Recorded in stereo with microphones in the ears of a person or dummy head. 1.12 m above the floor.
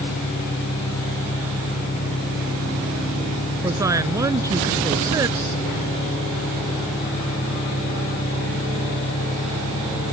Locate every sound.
0.0 s an engine running: 55° left (ahead or behind)
3.6 s a woman speaking: 15° right (ahead or behind)